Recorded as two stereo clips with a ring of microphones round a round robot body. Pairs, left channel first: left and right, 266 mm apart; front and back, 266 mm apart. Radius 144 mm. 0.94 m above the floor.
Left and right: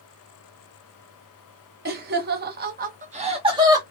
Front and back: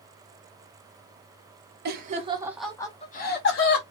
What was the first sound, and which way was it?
Laughter, 135° right.